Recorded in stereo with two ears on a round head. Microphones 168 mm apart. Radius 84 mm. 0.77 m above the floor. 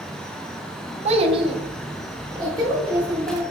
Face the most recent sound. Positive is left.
turn(degrees=-20)  # may be behind; listen again after turning